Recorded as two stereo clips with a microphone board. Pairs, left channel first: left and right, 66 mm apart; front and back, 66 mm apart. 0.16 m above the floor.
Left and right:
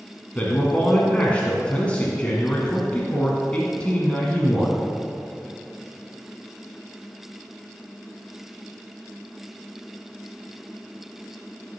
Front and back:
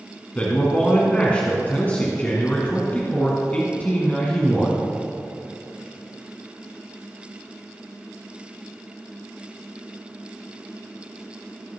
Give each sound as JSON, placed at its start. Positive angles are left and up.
{"t": 0.3, "sound": "a man speaking", "azimuth_deg": 40, "distance_m": 1.6}